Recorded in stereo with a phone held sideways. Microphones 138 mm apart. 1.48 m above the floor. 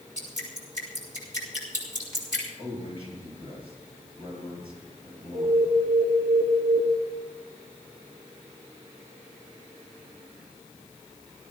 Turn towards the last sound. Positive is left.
turn(degrees=-80)